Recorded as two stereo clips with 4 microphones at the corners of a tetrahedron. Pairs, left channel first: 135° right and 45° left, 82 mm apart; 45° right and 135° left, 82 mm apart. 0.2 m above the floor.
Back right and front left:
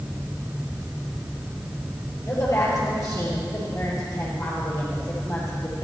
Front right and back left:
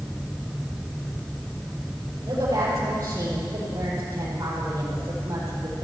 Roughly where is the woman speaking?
Behind.